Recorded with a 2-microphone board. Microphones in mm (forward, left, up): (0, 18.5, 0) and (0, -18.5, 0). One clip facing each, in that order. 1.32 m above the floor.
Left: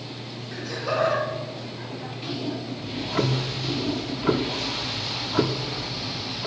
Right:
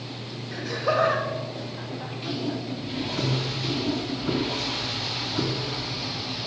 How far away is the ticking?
About 0.7 m.